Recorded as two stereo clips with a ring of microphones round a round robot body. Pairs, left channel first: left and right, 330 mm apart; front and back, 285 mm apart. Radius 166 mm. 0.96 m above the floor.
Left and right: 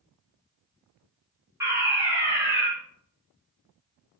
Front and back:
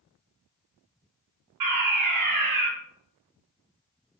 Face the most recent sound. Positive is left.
turn(degrees=-170)